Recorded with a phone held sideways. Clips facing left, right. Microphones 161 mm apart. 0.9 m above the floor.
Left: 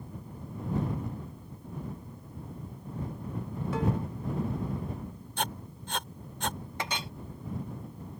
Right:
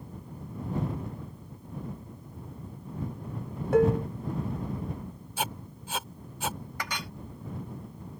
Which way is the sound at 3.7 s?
65° right (ahead or behind).